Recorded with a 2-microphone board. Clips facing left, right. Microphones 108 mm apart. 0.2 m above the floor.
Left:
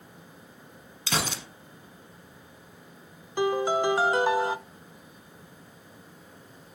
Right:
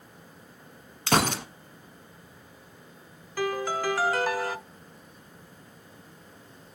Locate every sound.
1.1 s a gunshot: 55° right (ahead or behind), 1.0 m
3.4 s a piano: 20° left (ahead or behind), 0.5 m